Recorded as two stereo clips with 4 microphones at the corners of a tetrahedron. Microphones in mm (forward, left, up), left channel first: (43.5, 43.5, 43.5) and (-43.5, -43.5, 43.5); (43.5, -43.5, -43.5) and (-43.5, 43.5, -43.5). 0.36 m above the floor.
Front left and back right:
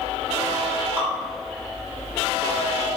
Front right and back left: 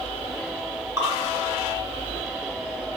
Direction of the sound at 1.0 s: 155° left.